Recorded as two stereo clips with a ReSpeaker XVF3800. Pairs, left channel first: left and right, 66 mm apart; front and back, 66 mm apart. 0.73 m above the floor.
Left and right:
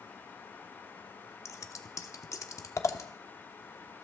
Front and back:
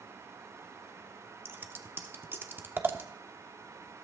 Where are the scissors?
125° left, 1.1 m.